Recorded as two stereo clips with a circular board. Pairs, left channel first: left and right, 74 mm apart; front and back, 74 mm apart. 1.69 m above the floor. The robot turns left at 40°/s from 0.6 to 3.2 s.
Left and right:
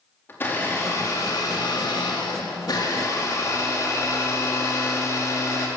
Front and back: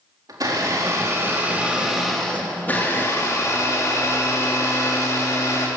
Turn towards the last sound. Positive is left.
turn(degrees=45)